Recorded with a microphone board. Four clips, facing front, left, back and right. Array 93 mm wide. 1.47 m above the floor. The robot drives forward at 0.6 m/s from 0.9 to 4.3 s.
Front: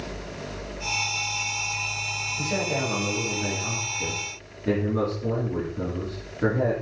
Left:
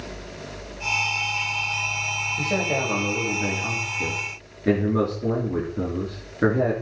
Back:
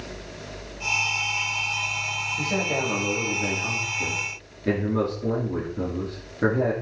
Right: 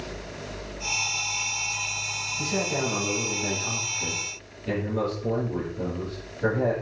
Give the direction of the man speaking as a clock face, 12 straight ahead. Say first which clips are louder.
Left 2 dB, even; 9 o'clock.